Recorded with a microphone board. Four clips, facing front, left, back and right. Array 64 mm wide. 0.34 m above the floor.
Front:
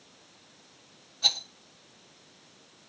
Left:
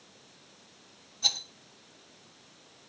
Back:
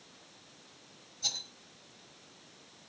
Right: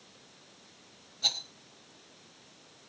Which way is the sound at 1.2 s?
5° right.